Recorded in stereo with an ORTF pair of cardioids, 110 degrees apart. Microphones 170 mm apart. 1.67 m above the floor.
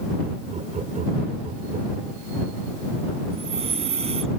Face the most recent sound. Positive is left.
turn(degrees=-40)